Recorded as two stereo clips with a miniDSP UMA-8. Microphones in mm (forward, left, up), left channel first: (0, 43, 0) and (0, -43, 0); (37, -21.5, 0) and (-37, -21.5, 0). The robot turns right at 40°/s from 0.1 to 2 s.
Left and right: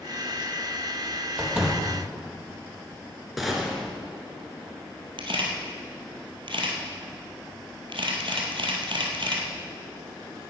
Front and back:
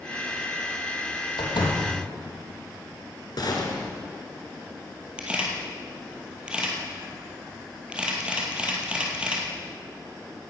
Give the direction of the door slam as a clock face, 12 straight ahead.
1 o'clock.